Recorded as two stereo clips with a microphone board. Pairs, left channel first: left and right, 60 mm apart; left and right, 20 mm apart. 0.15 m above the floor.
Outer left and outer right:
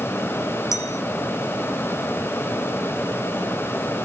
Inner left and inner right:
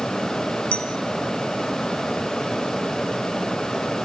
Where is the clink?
65° left (ahead or behind), 2.5 m.